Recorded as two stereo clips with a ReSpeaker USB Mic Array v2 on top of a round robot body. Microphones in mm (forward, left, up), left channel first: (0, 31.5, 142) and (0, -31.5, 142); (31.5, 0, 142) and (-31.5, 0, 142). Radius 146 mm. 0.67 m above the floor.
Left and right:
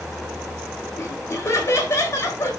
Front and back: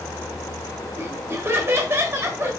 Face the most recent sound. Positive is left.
turn(degrees=135)